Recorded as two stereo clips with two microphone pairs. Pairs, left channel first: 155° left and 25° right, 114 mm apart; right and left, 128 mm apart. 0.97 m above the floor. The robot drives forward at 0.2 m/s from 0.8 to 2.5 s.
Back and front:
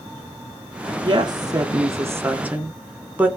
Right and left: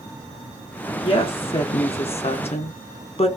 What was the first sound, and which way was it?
A woman speaking, 55° right.